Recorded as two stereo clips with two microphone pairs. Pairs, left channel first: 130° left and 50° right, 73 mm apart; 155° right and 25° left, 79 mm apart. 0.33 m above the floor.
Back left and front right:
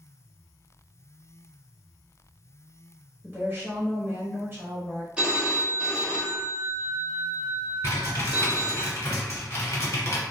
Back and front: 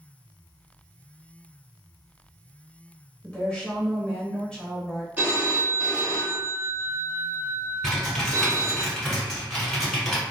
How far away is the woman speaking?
About 1.2 m.